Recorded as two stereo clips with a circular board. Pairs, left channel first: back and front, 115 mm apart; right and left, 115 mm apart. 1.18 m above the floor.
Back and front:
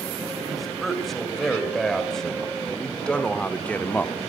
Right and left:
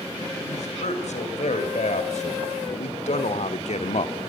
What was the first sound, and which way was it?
A man speaking, 90° right.